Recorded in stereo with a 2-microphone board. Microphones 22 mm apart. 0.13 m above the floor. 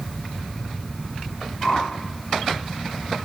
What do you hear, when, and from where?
1.6 s a whoosh: 30° left (ahead or behind), 1.1 m